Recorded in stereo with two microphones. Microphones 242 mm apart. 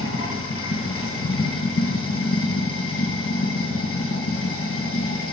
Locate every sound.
0.0 s running water: 75° left (ahead or behind), 1.2 m